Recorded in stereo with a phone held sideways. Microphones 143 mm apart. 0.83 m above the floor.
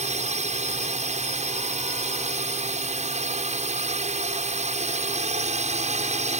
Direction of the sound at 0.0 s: 55° right (ahead or behind).